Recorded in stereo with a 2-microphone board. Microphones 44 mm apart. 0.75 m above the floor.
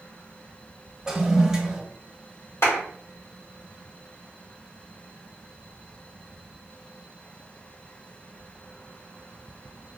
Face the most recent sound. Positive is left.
turn(degrees=70)  # may be behind; listen again after turning